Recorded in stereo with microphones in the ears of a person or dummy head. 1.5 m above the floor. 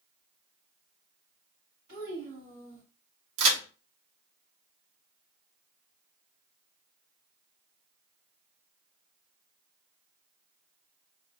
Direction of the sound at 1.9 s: 60° right (ahead or behind).